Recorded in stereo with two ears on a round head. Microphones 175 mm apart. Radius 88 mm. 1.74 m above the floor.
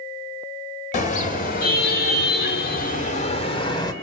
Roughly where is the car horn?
Left.